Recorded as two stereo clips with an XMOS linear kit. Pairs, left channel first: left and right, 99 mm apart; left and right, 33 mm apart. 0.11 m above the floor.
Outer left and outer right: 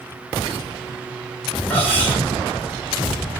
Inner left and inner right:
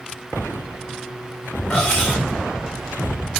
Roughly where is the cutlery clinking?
Centre.